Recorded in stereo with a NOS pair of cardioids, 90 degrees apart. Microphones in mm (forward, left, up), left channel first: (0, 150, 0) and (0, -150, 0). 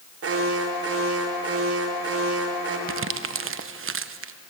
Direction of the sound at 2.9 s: 45° right.